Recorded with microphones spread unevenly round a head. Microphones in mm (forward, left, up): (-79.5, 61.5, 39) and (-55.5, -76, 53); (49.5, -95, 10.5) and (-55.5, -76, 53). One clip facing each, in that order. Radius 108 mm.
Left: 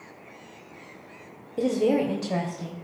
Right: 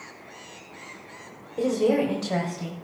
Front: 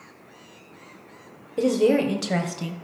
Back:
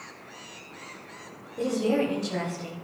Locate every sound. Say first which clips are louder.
1.6 s a woman speaking: right 1 dB, front 6 dB; 35° left, 1.3 m; by 2.8 s straight ahead, 1.2 m